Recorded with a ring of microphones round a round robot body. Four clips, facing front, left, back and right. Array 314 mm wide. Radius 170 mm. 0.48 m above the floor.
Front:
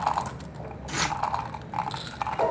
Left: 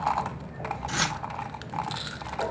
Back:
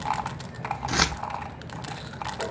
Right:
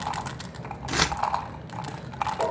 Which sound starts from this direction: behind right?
Keys jangling, at 0.9 s.